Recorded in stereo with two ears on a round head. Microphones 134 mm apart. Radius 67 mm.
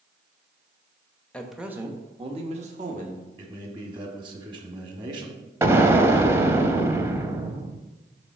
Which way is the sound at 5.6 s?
20° right (ahead or behind).